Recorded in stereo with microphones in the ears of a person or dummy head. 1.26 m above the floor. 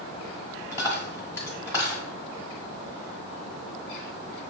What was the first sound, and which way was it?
A dropped coin, 15° left (ahead or behind).